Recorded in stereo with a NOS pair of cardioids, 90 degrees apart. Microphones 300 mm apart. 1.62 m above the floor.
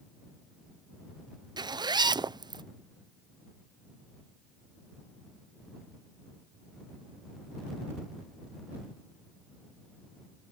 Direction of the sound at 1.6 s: 15° right.